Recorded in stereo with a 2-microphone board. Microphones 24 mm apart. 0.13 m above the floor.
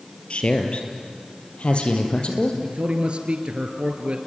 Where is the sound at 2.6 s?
55° right (ahead or behind), 2.0 m.